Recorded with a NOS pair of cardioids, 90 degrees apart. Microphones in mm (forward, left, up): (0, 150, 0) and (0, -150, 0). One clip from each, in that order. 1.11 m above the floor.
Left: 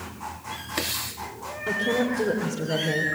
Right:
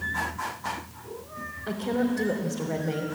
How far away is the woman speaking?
About 3 m.